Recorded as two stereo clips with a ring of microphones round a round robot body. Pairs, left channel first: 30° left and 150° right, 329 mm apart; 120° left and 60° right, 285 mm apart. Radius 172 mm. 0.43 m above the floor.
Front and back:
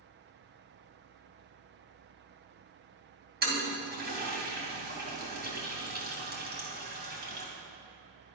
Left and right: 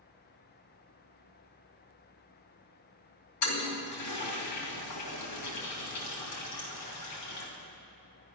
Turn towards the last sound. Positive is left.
turn(degrees=150)